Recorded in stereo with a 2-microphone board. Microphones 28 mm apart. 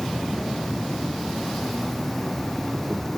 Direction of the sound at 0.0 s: 10° left (ahead or behind).